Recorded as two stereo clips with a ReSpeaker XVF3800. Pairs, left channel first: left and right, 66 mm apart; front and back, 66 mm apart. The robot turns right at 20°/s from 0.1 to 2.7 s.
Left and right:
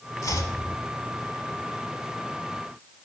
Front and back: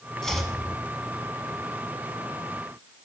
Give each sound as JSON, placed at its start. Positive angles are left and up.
{"t": 0.2, "sound": "chopping", "azimuth_deg": 80, "distance_m": 0.7}